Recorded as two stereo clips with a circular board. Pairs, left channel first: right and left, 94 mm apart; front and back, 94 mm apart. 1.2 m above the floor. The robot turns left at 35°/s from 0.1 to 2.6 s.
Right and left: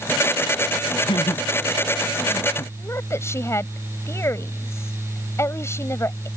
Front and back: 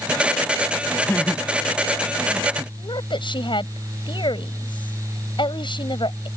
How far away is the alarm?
I don't hear an alarm.